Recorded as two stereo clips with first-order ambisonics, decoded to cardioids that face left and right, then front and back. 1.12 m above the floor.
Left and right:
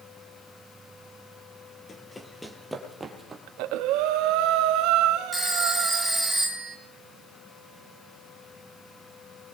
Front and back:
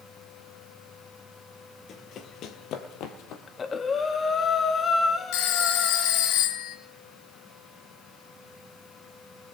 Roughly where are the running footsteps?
Ahead left.